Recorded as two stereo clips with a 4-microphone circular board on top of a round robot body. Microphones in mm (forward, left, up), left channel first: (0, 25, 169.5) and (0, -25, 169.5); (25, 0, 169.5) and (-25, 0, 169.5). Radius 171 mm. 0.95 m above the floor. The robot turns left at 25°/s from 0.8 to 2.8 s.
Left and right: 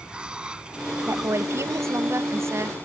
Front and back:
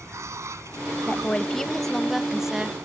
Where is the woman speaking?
65° right; by 2.8 s 110° right.